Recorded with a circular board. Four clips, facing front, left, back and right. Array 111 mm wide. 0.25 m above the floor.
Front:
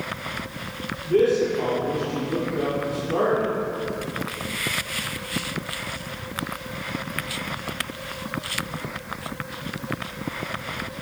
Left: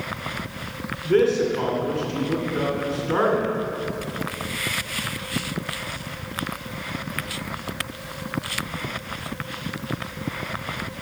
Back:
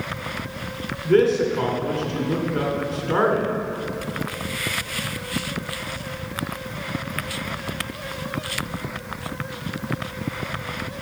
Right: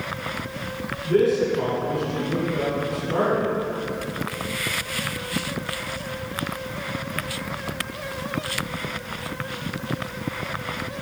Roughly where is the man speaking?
Behind left.